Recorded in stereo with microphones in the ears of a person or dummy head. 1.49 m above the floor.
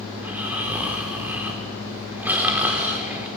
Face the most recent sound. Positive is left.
turn(degrees=-10)  # may be behind; listen again after turning